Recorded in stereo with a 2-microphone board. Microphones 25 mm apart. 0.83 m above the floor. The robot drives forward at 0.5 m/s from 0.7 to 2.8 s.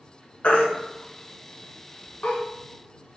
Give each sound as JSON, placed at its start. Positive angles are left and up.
{"t": 0.4, "sound": "a baby crying", "side_deg": 80, "distance_m": 2.5}